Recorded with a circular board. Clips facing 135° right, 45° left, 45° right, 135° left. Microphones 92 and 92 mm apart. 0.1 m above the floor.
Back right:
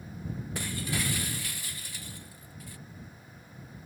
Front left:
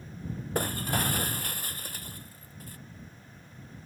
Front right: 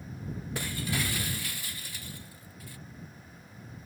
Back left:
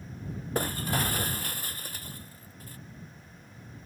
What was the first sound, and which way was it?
Breaking glass, 90° left.